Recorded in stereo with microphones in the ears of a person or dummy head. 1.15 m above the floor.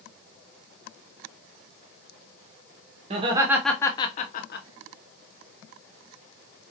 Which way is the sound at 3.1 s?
30° right (ahead or behind).